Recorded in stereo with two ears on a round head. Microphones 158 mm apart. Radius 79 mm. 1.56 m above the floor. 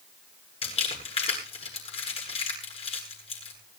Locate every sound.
0.6 s crumpling: 35° left (ahead or behind), 9 m